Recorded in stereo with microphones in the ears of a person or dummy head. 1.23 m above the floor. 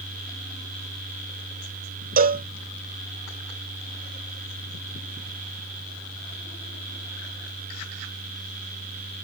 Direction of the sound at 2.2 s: 45° right (ahead or behind).